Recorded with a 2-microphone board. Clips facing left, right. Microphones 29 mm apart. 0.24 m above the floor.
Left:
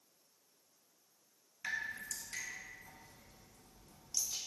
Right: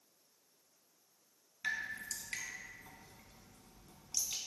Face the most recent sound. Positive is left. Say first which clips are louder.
# right 1 dB
turn(degrees=-50)  # may be behind; listen again after turning